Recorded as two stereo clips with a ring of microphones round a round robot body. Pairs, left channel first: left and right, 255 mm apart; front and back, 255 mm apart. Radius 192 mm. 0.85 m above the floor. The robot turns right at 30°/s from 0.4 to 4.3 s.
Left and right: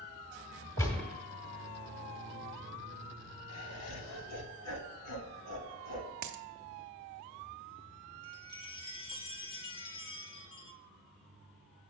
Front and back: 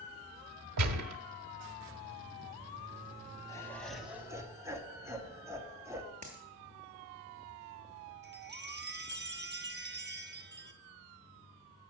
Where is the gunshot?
170° left, 0.9 m; by 1.2 s 175° right, 0.9 m.